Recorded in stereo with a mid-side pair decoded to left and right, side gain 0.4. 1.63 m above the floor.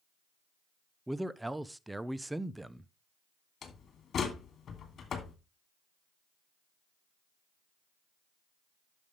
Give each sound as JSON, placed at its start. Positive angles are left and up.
{"t": 1.1, "sound": "a man speaking", "azimuth_deg": -10, "distance_m": 0.9}
{"t": 3.6, "sound": "a door slam", "azimuth_deg": 60, "distance_m": 3.0}